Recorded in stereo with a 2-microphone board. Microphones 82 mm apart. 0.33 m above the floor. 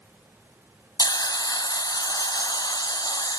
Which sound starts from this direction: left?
A hiss, at 1.0 s.